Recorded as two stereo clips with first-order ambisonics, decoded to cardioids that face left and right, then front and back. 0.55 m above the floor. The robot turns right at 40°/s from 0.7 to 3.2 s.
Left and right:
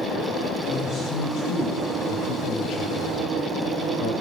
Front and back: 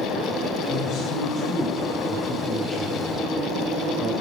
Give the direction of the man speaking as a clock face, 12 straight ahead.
11 o'clock.